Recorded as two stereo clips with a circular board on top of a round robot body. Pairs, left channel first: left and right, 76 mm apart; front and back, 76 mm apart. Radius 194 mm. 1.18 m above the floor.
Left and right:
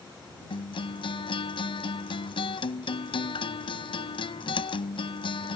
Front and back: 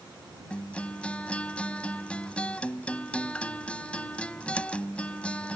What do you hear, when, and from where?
0.5 s a guitar: 75° left